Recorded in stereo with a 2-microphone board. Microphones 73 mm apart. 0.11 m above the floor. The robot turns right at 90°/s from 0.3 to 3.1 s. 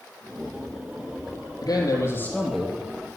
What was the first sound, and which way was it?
A man speaking, 100° left.